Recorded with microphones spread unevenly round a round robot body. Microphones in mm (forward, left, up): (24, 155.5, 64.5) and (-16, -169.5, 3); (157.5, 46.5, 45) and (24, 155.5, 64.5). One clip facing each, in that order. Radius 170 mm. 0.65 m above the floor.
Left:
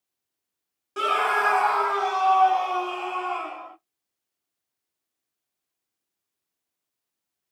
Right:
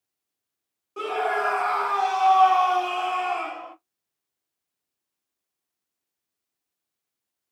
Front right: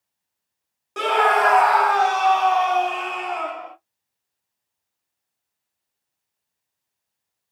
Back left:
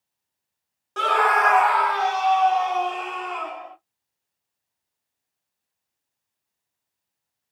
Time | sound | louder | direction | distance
1.0 | a scream | right 1 dB, front right 3 dB | 30° left | 1.2 m